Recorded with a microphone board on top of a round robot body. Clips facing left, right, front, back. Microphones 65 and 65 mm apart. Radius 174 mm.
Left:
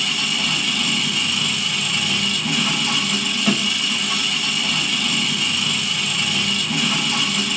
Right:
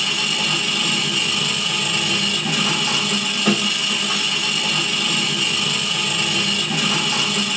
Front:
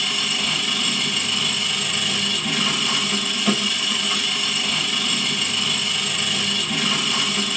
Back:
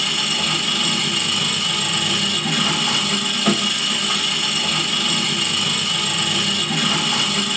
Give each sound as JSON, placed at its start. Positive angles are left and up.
{"t": 0.0, "sound": "an engine running", "azimuth_deg": -145, "distance_m": 3.0}